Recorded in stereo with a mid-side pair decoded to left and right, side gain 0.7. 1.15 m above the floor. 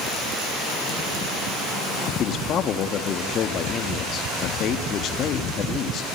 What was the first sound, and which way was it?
A man speaking, 45° left.